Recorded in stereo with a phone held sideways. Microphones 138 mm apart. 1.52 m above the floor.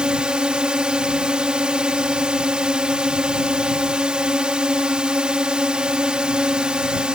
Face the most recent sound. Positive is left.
turn(degrees=-5)  # may be behind; listen again after turning